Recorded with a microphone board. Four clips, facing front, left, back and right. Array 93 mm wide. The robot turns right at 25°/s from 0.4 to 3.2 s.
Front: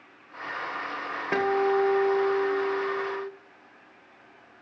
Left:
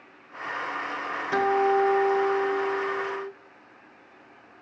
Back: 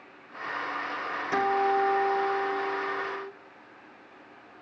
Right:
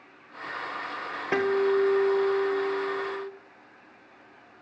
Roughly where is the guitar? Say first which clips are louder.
Left 1 dB, front 1 dB; ahead right.